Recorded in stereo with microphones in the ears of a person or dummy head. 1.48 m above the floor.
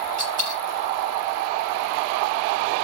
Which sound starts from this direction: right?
A dropped coin, at 0.2 s.